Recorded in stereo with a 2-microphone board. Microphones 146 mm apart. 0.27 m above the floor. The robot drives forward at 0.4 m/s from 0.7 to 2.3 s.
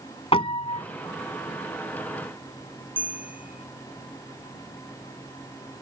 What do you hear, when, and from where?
0.3 s a piano: 40° left (ahead or behind); by 0.8 s 45° left (ahead or behind)
3.0 s a bell: 10° right (ahead or behind)